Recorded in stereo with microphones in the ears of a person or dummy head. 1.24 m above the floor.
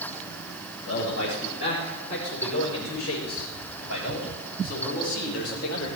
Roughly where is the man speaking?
Left.